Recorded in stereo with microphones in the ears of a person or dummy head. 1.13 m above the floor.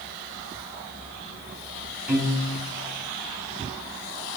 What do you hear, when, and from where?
2.1 s a piano: 5° right (ahead or behind), 1.3 m